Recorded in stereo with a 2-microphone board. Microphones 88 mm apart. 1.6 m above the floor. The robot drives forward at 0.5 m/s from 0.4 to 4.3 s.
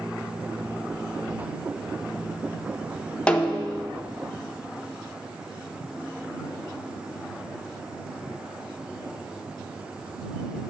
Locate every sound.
3.3 s a snare drum: 10° left (ahead or behind), 0.6 m; by 3.9 s 15° left (ahead or behind), 0.5 m